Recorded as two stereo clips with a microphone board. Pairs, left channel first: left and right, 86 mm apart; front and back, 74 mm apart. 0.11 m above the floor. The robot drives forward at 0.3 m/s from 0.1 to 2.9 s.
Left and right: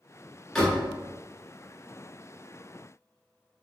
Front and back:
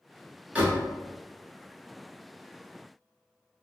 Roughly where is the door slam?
Behind.